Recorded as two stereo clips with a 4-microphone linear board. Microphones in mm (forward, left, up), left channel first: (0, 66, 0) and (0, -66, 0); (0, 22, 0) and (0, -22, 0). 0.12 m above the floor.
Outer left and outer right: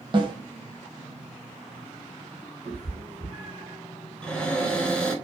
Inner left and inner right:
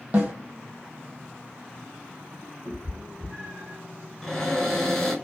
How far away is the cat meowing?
About 1.4 m.